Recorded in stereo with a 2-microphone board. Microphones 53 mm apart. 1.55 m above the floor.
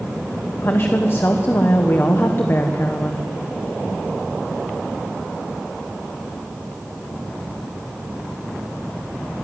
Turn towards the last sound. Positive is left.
turn(degrees=45)  # may be behind; listen again after turning